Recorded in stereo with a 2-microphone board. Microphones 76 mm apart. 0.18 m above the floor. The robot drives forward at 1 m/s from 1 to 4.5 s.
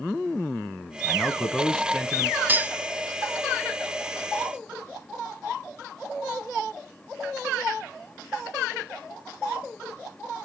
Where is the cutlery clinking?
25° right (ahead or behind), 0.6 m; by 2.8 s 20° right (ahead or behind), 0.7 m.